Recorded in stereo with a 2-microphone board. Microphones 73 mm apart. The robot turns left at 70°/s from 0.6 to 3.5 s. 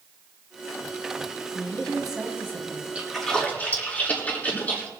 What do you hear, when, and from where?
1.5 s a woman speaking: 30° left, 3 m; by 2.9 s 60° right, 3 m
3.0 s a splash: 15° right (ahead or behind), 6.5 m; by 4.9 s 20° left (ahead or behind), 6.5 m